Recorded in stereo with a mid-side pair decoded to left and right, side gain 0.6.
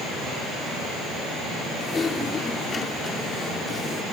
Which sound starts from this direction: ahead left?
Typing on a keyboard, at 1.8 s.